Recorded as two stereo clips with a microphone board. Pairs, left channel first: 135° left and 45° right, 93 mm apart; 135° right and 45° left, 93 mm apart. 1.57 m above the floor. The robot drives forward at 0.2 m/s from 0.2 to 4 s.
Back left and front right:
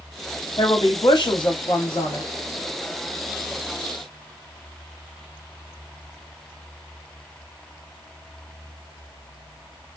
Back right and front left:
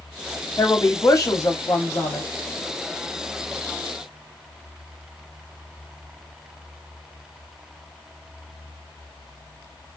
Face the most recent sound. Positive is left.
turn(degrees=175)